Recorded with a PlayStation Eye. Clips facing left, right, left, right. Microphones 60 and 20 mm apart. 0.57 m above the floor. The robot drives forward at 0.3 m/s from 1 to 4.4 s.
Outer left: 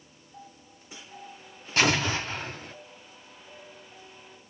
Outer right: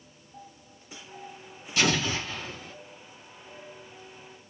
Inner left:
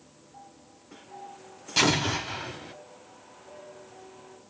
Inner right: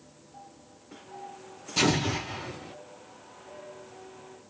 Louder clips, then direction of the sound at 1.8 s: Outer left 2 dB, inner left 2 dB; 45° left (ahead or behind).